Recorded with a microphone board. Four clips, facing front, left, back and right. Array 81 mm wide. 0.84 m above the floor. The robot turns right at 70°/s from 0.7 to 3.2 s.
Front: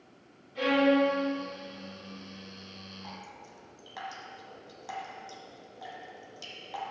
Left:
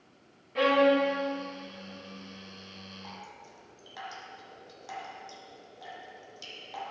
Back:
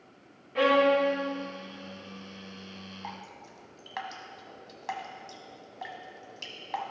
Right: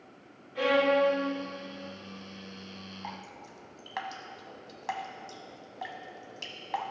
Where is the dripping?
140° right, 1.3 m; by 6.9 s 130° right, 1.3 m.